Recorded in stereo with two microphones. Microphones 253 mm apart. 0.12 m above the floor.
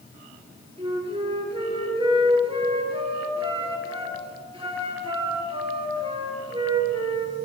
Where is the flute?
20° right (ahead or behind), 2.5 m.